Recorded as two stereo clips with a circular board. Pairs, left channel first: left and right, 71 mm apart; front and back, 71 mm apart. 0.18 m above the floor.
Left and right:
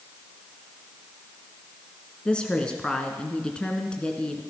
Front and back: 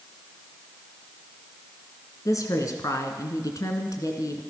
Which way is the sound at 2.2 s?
15° left.